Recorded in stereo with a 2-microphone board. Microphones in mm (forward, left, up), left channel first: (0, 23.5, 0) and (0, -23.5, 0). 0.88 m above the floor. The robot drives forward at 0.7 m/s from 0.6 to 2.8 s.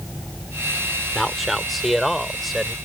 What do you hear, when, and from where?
1.1 s a man speaking: centre (ahead or behind)